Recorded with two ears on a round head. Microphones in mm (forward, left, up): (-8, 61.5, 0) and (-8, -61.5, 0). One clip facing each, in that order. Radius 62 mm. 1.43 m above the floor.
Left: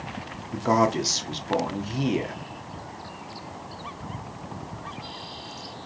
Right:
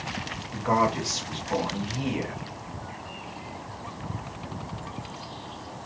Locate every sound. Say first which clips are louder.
0.5 s a man speaking: left 2 dB; 45° left (ahead or behind), 0.9 m